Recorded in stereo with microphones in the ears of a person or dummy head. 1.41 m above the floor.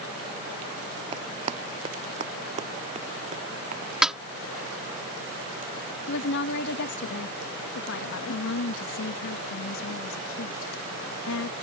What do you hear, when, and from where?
1.1 s running footsteps: 35° right (ahead or behind); by 3.9 s 45° right (ahead or behind)
4.0 s a snare drum: 5° right (ahead or behind)
6.1 s a woman speaking: 65° left (ahead or behind)
8.3 s a woman speaking: 80° left